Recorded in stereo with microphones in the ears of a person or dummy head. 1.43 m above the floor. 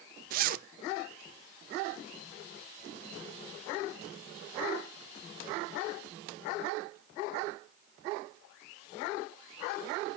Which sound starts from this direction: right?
A zipper, at 0.3 s.